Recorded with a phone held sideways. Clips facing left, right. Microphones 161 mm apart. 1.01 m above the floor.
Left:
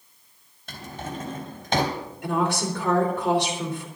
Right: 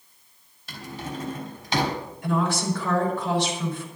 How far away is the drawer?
About 3.5 m.